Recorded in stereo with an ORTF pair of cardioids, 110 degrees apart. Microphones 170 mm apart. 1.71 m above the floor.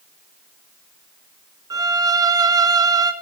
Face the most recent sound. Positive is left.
turn(degrees=-25)